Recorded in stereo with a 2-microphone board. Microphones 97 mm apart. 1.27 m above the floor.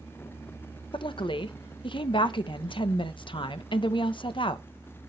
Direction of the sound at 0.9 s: 60° left (ahead or behind).